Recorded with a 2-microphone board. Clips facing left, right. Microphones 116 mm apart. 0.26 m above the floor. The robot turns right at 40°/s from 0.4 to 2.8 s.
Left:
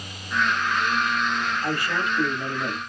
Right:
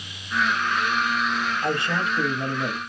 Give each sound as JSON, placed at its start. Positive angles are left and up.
{"t": 1.6, "sound": "a man speaking", "side_deg": -25, "distance_m": 0.9}